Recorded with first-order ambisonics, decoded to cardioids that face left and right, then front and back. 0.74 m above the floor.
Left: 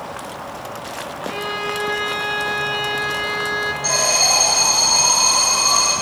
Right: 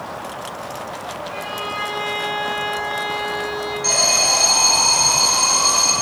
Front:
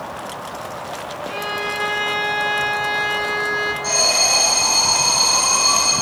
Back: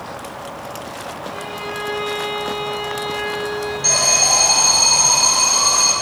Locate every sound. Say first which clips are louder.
1.3 s a violin: left 4 dB, front 6 dB; 55° left, 0.8 m
3.8 s an alarm: right 1 dB, back 2 dB; 165° left, 3 m